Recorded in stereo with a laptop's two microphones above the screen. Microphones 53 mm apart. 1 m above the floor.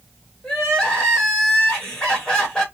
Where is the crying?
15° left (ahead or behind), 1.3 m.